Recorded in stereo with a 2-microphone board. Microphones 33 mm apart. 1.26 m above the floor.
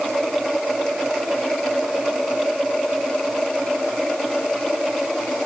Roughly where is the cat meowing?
I don't hear a cat meowing.